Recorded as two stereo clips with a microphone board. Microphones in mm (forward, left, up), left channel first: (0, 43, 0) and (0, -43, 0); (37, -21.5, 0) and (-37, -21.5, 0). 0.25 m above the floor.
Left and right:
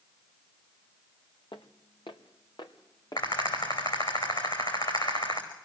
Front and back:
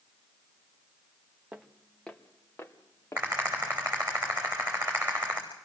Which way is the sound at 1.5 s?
105° left.